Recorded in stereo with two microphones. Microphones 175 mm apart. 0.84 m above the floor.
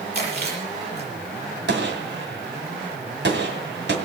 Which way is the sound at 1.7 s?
70° right (ahead or behind).